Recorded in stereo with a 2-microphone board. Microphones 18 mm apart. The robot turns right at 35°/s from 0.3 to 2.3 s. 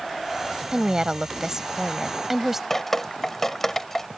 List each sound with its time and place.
0.7 s a woman speaking: 85° right; by 2.6 s 30° right
2.7 s dripping: 20° left (ahead or behind)